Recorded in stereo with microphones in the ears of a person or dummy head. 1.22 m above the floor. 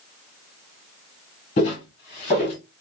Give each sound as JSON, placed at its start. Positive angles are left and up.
{"t": 1.6, "sound": "footsteps", "side_deg": 20, "distance_m": 1.3}